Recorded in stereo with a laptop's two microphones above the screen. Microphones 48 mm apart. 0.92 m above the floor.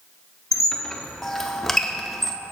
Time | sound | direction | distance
0.5 | a squeak | 5° left (ahead or behind) | 0.6 m